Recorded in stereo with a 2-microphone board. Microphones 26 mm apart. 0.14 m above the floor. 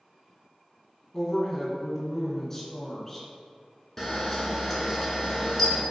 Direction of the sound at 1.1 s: 15° left (ahead or behind).